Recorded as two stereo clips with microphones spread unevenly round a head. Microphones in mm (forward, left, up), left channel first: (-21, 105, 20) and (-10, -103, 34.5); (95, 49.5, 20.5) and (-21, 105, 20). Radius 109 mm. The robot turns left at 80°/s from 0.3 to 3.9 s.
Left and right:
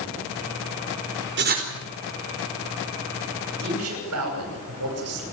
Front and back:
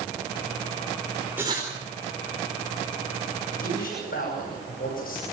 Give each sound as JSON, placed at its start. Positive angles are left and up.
{"t": 1.4, "sound": "writing", "azimuth_deg": -125, "distance_m": 4.5}
{"t": 3.6, "sound": "a man speaking", "azimuth_deg": -45, "distance_m": 10.0}